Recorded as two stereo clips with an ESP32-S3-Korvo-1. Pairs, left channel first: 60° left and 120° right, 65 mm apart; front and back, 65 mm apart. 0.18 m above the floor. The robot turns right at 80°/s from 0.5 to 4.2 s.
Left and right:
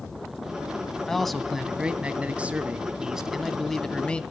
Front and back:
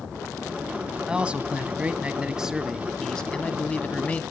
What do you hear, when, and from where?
1.1 s a man speaking: 130° left, 1.0 m; by 4.2 s 20° left, 1.0 m